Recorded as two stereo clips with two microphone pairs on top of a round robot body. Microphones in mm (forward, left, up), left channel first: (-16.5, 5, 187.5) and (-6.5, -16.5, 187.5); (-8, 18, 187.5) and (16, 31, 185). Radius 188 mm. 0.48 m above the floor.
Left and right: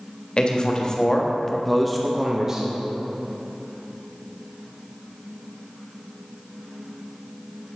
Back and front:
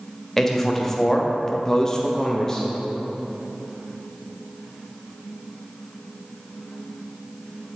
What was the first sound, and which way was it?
A man speaking, 125° left.